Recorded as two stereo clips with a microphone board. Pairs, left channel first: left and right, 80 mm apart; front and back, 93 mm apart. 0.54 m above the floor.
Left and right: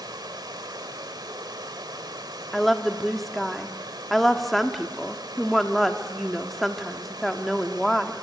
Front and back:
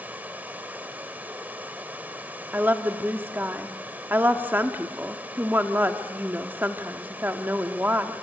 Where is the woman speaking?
175° left, 1.1 m.